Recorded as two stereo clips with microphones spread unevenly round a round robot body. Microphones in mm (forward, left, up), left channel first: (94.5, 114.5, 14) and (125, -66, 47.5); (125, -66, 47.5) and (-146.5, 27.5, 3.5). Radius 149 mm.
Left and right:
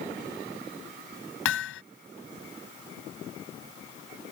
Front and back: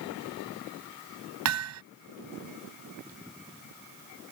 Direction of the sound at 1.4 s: 125° left.